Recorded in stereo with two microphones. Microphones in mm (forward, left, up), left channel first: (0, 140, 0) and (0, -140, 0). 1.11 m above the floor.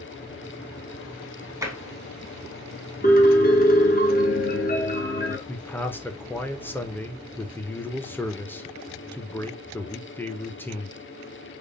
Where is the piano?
30° left (ahead or behind), 0.8 m.